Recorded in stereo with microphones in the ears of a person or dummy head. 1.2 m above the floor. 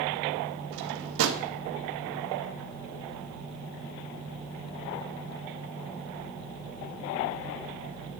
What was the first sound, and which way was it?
A drawer, 70° right (ahead or behind).